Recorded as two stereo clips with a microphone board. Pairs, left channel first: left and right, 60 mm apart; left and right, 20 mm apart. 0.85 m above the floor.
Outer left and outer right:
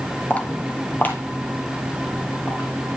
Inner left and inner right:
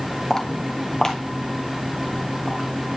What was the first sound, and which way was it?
Footsteps, 25° left (ahead or behind).